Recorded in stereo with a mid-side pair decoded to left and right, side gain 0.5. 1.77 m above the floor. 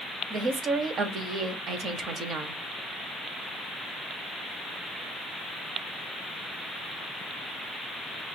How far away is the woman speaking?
About 0.8 m.